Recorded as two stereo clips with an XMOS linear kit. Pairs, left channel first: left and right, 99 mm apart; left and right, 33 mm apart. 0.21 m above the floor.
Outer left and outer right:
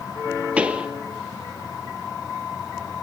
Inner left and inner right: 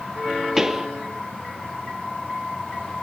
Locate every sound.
0.6 s a pop: 10° right (ahead or behind), 1.5 m